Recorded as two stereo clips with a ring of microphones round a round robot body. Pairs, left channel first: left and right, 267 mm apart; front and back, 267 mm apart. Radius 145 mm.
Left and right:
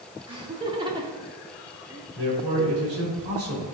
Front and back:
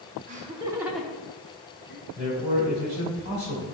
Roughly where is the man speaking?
Behind right.